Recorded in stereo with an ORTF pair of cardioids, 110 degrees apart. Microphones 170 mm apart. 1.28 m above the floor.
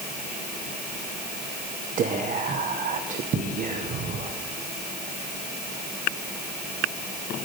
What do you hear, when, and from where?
2.0 s whispering: 55° right, 0.9 m